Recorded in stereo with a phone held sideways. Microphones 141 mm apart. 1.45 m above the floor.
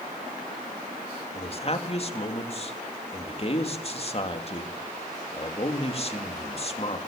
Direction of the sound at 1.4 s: 40° left (ahead or behind).